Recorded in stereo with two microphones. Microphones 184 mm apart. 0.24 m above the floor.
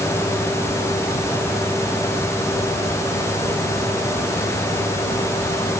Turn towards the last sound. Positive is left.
No sound to turn to.